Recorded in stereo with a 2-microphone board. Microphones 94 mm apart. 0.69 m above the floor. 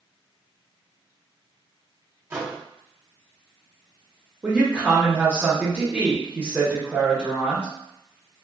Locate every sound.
2.3 s a microwave: 25° right (ahead or behind), 0.8 m
4.4 s a woman speaking: 15° right (ahead or behind), 0.8 m